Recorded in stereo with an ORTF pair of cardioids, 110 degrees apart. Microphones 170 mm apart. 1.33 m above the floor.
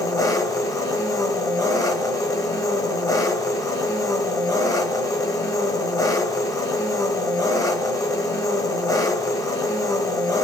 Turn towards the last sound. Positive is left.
turn(degrees=20)